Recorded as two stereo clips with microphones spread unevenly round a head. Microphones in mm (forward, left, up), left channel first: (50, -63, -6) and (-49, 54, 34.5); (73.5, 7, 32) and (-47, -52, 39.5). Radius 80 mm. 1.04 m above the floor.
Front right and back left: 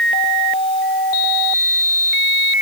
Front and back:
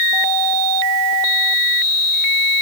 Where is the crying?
I don't hear crying.